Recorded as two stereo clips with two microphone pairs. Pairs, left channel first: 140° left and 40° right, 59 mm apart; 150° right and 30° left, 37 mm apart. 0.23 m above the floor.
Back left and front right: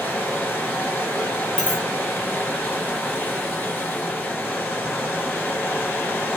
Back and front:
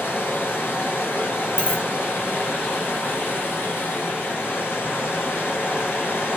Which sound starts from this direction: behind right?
A dropped coin, at 1.6 s.